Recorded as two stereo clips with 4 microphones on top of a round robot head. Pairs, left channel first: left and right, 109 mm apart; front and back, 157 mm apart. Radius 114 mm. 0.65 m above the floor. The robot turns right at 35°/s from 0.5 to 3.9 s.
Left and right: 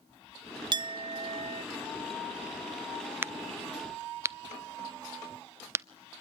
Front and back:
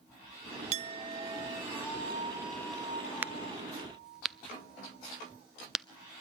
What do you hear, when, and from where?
0.7 s a clink: 135° right, 0.6 m; by 1.6 s 105° right, 0.6 m
3.2 s a crack: 120° right, 0.5 m; by 5.8 s 95° right, 0.5 m